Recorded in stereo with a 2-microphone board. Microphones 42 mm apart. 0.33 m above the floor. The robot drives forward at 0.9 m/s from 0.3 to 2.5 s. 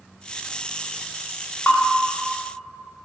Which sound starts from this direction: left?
A bell, at 1.7 s.